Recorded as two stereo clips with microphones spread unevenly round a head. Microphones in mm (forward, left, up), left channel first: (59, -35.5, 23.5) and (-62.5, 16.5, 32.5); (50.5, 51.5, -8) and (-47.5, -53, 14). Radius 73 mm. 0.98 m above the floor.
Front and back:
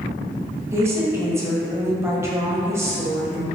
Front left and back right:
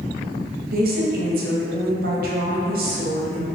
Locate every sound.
0.7 s a woman speaking: 135° right, 0.8 m